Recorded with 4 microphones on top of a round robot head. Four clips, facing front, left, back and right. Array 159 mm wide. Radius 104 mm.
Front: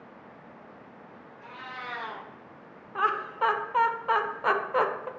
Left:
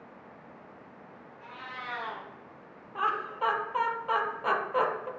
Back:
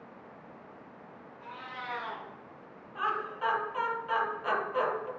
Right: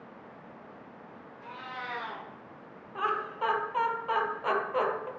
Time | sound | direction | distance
1.4 | a cat meowing | 45° right | 3 m
3.0 | laughter | straight ahead | 1.2 m